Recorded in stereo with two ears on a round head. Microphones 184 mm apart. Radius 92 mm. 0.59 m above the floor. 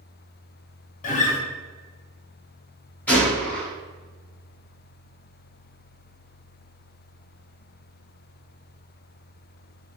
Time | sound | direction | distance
1.0 | a guitar | 40° left (ahead or behind) | 0.6 m
3.1 | a gunshot | 10° left (ahead or behind) | 1.1 m